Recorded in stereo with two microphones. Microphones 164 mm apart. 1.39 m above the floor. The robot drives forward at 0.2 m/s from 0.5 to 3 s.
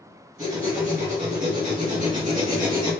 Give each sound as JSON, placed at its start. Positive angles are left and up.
{"t": 0.4, "sound": "writing", "side_deg": -50, "distance_m": 1.8}